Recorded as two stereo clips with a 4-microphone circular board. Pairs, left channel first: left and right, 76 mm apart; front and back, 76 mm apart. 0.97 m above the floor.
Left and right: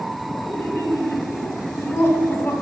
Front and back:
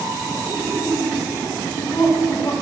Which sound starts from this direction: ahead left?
Laughter, at 0.4 s.